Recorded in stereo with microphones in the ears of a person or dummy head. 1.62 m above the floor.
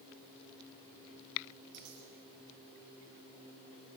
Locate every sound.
1.7 s a dropped coin: 80° right, 9 m